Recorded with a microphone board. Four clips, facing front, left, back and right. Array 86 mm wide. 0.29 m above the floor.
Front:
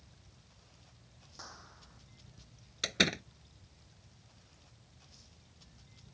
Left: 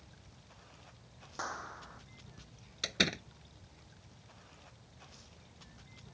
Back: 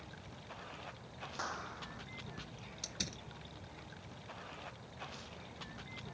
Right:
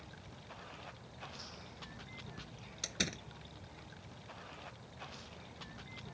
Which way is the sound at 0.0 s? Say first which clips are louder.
Right 7 dB, back 12 dB; 150° right.